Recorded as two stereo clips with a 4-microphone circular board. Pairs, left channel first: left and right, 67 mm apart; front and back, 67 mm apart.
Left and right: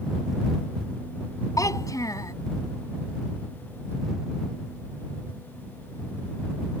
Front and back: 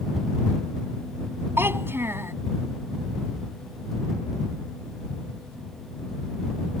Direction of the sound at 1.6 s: 125° left.